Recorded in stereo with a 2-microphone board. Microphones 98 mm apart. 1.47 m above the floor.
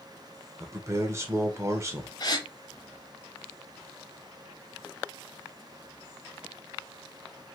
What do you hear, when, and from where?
0.6 s a man speaking: 30° right (ahead or behind), 0.7 m
2.2 s a gasp: 45° left (ahead or behind), 0.6 m